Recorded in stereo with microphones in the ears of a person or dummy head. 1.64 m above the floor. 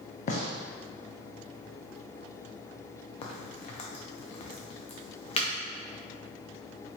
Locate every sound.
0.3 s a gunshot: 50° left (ahead or behind), 0.6 m
3.2 s a crack: 40° left (ahead or behind), 0.6 m